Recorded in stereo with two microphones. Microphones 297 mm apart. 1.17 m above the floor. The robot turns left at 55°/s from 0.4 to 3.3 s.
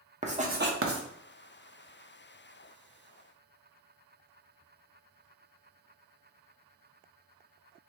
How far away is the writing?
About 0.6 m.